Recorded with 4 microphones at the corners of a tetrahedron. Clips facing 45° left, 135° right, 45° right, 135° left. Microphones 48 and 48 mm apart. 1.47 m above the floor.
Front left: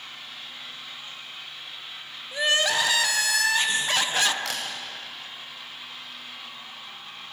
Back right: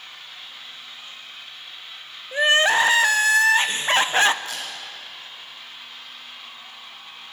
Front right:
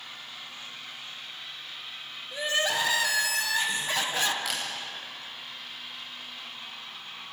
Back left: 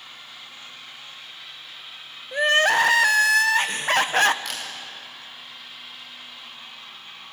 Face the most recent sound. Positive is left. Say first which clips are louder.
# front left 1 dB, even
turn(degrees=40)